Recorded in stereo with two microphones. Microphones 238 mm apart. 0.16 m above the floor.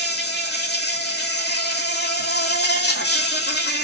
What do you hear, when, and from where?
0.0 s an insect: 45° left (ahead or behind), 0.9 m